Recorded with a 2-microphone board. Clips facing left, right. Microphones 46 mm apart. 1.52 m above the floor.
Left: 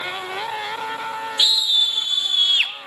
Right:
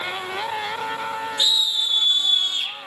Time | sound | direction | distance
1.4 | a scream | 75° left (ahead or behind) | 2.5 m